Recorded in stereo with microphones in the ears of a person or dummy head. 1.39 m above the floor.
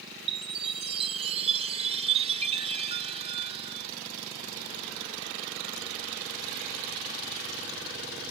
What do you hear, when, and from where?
0.3 s a chime: 35° right (ahead or behind)